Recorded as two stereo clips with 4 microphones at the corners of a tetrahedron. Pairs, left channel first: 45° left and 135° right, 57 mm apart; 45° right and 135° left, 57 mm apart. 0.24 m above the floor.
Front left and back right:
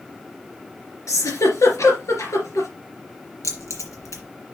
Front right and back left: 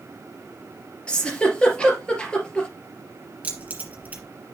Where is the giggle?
25° left, 3 m.